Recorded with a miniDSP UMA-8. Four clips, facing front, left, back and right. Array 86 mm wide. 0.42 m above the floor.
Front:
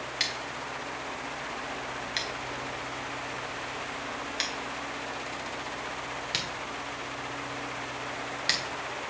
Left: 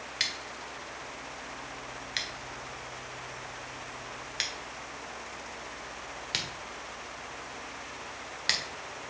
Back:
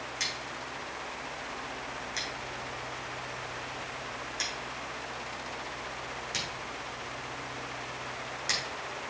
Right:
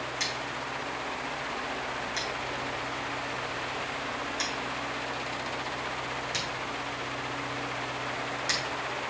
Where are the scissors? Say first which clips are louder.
Right 6 dB, front 3 dB; 50° left, 1.6 m.